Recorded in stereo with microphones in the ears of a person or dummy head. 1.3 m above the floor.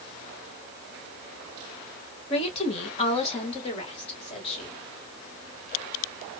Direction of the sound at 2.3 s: 35° left (ahead or behind).